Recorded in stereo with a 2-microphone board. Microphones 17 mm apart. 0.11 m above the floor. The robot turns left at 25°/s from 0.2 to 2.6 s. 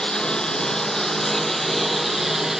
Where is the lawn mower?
50° left; by 2.6 s 10° right.